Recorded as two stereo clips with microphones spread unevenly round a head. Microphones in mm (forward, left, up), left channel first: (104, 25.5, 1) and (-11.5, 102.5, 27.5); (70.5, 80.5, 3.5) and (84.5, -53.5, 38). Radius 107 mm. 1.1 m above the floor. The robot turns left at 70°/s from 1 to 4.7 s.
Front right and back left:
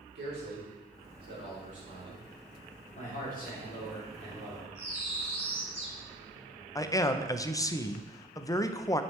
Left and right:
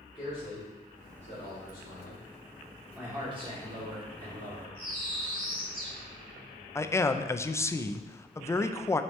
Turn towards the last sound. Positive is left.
turn(degrees=30)